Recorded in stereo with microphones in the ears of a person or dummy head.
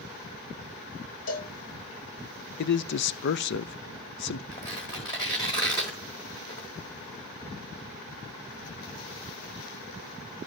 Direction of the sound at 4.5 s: 15° left (ahead or behind).